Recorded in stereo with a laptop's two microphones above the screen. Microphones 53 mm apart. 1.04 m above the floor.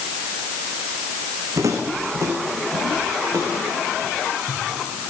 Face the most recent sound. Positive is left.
turn(degrees=-70)  # may be behind; listen again after turning